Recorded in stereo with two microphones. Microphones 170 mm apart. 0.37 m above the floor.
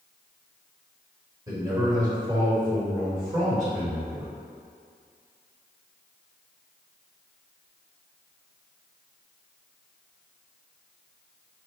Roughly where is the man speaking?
Right.